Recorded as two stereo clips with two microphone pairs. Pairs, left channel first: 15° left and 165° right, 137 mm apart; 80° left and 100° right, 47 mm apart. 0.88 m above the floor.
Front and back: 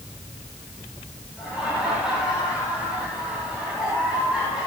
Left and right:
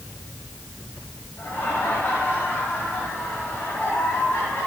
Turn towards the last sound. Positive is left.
turn(degrees=110)